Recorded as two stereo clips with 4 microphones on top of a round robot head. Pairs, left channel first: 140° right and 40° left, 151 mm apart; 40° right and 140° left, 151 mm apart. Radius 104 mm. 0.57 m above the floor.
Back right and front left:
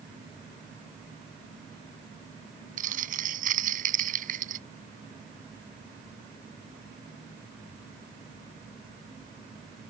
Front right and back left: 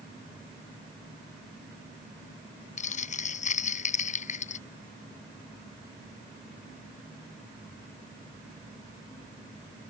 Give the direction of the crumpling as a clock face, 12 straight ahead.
12 o'clock.